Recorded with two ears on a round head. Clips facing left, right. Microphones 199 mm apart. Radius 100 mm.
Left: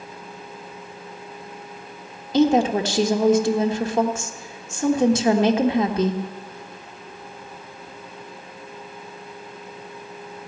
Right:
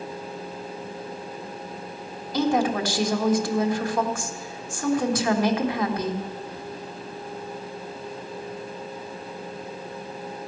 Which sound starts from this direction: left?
A woman speaking, at 2.3 s.